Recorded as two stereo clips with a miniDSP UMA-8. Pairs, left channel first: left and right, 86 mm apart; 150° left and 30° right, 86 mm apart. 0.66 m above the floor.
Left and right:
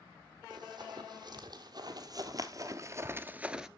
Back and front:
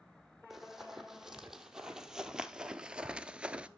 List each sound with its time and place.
0.5 s running footsteps: 115° right, 1.8 m; by 3.7 s 25° right, 0.6 m